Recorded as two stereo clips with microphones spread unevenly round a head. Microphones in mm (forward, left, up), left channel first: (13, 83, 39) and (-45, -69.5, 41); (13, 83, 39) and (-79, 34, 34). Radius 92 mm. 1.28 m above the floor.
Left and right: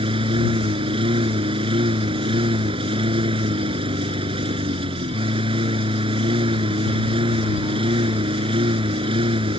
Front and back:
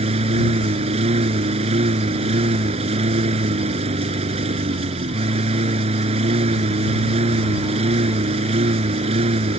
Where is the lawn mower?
170° right.